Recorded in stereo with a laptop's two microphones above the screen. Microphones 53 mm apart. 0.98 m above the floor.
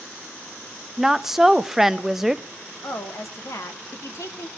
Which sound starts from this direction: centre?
A woman speaking, at 1.0 s.